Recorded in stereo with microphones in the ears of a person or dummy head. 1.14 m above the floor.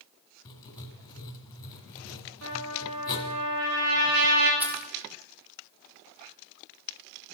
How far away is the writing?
About 1.8 m.